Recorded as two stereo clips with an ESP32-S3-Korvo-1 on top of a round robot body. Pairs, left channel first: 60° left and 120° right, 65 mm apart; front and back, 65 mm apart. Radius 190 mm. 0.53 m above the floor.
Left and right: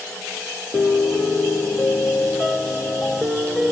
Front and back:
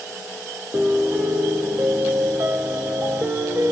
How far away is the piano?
About 1.2 m.